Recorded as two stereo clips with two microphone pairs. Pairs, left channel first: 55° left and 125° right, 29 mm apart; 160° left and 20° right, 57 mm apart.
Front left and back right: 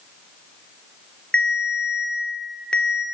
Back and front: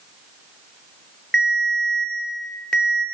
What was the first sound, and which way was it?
A ringtone, 90° left.